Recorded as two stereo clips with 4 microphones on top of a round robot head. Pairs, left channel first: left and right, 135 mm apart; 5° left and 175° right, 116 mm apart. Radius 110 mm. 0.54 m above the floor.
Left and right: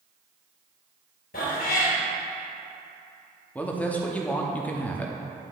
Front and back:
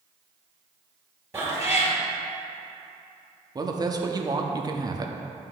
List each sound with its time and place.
1.3 s a cat meowing: 120° left, 2 m
3.5 s a woman speaking: 160° left, 0.9 m